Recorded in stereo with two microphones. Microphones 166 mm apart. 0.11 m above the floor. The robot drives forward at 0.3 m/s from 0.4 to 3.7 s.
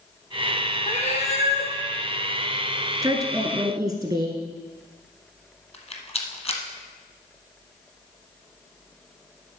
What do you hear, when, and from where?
0.9 s a cat meowing: 45° left (ahead or behind), 2.5 m; by 1.7 s 40° left (ahead or behind), 2.5 m
3.0 s a woman speaking: 20° right (ahead or behind), 1.5 m
5.7 s a rattle: 40° left (ahead or behind), 1.3 m